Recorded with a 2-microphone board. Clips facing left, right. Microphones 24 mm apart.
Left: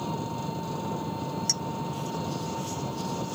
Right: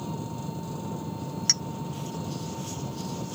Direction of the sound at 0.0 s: 20° left (ahead or behind).